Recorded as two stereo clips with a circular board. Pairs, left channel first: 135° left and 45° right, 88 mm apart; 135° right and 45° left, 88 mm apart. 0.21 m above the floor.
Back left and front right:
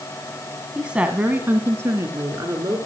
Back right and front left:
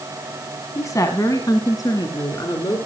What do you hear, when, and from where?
0.8 s a woman speaking: 120° right, 1.5 m; by 2.8 s 95° right, 3 m